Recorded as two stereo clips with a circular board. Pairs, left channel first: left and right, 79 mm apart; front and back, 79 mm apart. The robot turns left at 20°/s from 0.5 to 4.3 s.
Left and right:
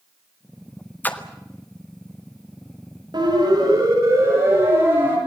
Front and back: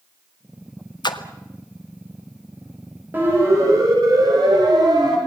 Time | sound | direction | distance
1.0 | a splash | 25° left | 1.7 m
3.1 | a siren | 115° right | 9.5 m